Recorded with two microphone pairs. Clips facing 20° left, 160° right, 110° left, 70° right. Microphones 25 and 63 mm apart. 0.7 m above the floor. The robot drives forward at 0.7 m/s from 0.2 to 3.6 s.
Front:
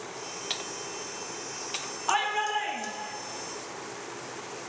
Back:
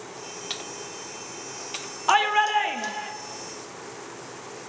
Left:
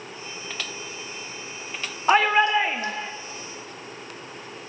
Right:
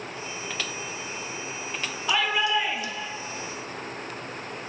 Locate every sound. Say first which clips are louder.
2.1 s a shout: back 7 dB, left 6 dB; 140° left, 1.4 m; by 3.1 s 155° left, 2.0 m